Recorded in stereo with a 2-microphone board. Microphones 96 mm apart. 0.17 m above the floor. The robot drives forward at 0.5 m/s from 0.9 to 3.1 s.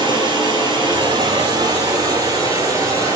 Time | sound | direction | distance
0.0 | running water | 50° right (ahead or behind) | 1.8 m